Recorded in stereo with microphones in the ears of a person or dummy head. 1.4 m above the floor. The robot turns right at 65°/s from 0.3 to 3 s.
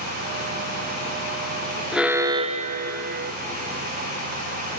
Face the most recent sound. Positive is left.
turn(degrees=-115)